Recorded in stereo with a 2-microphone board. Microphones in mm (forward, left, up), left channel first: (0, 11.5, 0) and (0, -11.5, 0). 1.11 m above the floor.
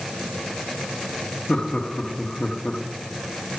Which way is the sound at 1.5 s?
50° left (ahead or behind).